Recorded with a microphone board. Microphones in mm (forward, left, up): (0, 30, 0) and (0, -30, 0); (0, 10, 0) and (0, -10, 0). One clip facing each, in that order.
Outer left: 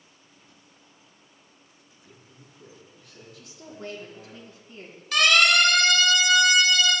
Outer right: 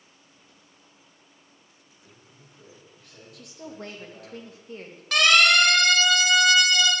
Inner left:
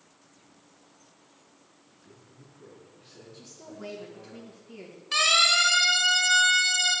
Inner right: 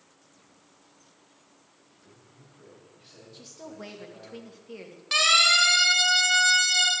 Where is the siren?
75° right (ahead or behind), 4 m; by 6.9 s 80° right, 4 m.